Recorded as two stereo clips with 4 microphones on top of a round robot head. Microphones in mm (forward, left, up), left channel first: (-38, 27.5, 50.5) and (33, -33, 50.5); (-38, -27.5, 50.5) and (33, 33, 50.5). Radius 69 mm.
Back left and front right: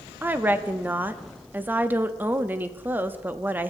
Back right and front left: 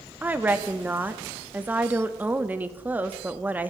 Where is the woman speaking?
5° right, 0.8 m.